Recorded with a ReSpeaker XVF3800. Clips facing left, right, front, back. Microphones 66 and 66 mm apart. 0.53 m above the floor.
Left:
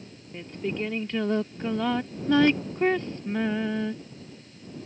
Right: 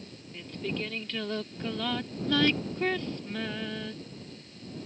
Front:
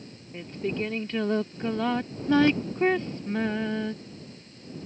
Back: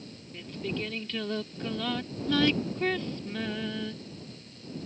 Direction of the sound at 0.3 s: 35° left.